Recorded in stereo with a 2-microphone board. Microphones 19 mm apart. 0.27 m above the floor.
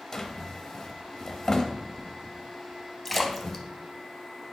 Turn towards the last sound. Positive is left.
turn(degrees=10)  # may be behind; listen again after turning